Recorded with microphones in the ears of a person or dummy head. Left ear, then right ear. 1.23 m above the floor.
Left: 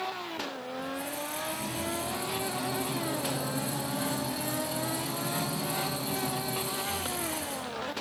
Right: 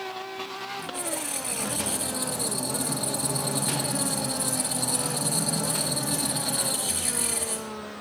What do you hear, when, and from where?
0.8 s a squeak: 15° right (ahead or behind), 1.0 m